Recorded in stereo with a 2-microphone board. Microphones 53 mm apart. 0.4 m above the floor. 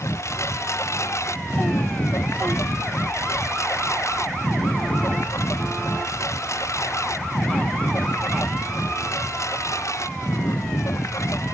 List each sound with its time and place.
0.0 s a lawn mower: 65° left (ahead or behind); by 11.5 s 75° left (ahead or behind)